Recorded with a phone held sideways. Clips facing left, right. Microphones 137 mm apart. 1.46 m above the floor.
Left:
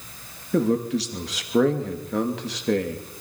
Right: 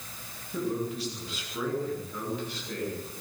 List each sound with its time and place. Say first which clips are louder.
0.5 s a man speaking: left 9 dB; 80° left, 2.5 m